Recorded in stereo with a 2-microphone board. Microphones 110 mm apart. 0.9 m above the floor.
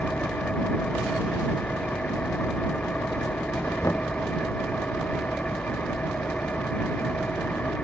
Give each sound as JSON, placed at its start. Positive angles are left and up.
{"t": 0.0, "sound": "an engine running", "side_deg": 10}
{"t": 3.8, "sound": "knocking", "side_deg": 25}